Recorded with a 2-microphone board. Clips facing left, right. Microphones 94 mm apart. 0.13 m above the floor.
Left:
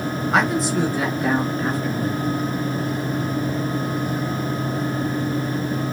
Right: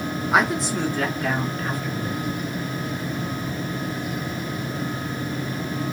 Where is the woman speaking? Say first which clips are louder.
Left 1 dB; 10° right (ahead or behind), 1.4 m; by 2.2 s 40° left (ahead or behind), 1.6 m.